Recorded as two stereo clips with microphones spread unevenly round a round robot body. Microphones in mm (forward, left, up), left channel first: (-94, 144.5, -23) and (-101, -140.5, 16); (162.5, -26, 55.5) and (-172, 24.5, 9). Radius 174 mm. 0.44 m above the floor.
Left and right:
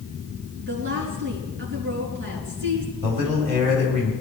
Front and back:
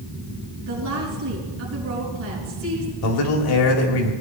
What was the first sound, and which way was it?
A woman speaking, 135° right.